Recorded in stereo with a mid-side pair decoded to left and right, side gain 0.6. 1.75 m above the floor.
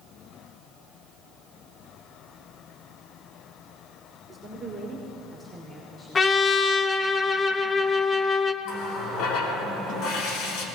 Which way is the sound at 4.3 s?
20° right.